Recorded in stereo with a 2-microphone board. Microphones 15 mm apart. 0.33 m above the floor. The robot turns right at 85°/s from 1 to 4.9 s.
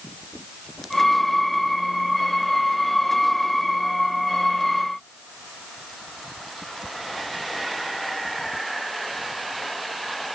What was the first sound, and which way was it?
Only background noise.